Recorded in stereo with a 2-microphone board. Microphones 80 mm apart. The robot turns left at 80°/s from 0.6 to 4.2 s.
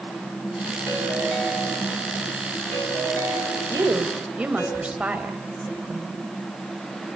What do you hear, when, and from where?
0.9 s a ringtone: 50° left, 5 m; by 4.7 s 145° left, 5 m
3.7 s a woman speaking: 55° right (ahead or behind), 3 m; by 6.2 s 15° right (ahead or behind), 3 m